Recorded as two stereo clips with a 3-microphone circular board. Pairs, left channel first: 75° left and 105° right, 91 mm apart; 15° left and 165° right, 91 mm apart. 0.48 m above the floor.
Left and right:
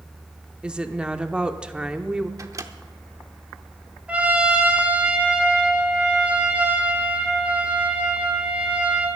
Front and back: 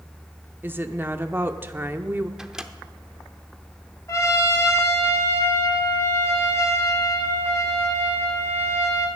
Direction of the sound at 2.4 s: 85° right.